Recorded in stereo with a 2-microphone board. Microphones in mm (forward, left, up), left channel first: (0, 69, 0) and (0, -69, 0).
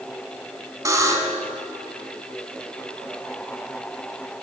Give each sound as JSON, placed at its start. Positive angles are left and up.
{"t": 0.8, "sound": "a buzzer", "side_deg": -25, "distance_m": 0.7}